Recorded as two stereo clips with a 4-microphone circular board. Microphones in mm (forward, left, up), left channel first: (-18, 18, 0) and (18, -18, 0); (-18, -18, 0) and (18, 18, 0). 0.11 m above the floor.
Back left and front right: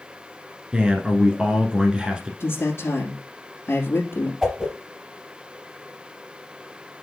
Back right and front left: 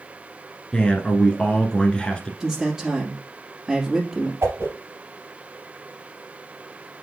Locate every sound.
0.7 s a man speaking: 90° right, 1.2 m
2.4 s a man speaking: 125° left, 2.5 m
4.4 s a whoosh: 40° left, 3 m